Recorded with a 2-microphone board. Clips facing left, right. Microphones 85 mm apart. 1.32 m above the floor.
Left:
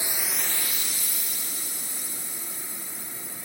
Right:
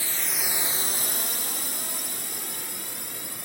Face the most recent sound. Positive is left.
turn(degrees=-75)  # may be behind; listen again after turning